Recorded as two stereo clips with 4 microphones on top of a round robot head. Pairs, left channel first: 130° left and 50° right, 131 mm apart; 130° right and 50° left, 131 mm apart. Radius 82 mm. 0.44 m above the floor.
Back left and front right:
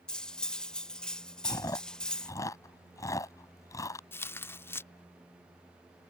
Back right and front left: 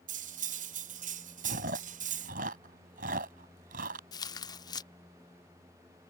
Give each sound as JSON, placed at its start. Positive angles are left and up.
{"t": 0.1, "sound": "cutlery clinking", "azimuth_deg": 45}
{"t": 1.4, "sound": "chewing", "azimuth_deg": 65}
{"t": 4.1, "sound": "tearing paper", "azimuth_deg": -165}